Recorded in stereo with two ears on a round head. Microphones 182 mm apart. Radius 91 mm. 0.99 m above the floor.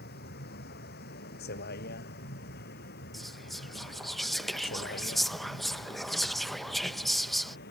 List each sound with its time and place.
0.0 s a vehicle: 50° left (ahead or behind)
3.1 s whispering: centre (ahead or behind)